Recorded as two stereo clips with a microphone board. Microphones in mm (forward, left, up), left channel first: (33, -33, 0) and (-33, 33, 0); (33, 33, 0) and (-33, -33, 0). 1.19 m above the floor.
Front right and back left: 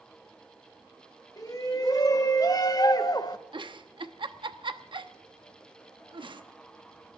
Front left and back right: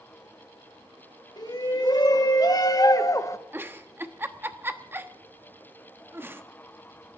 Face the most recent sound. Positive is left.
turn(degrees=160)